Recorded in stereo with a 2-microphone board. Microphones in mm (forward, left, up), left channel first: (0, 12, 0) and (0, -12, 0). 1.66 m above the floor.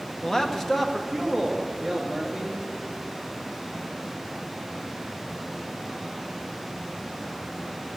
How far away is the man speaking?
About 0.9 m.